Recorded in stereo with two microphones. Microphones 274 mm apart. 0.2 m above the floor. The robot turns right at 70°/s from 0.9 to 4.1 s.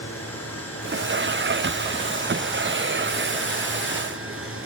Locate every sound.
0.0 s running water: 75° left, 2.5 m; by 4.7 s 65° right, 2.5 m